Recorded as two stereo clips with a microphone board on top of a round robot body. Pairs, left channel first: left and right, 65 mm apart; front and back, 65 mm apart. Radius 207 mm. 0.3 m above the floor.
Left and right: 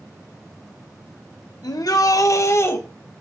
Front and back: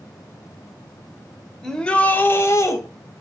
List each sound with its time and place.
1.6 s a shout: 85° left, 2 m; by 2.8 s 40° left, 2.5 m